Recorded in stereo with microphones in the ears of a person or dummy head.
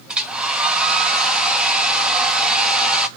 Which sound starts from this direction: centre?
A hair dryer, at 0.1 s.